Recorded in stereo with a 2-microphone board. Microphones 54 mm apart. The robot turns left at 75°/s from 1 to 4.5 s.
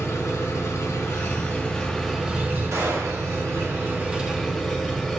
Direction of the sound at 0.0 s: 70° left.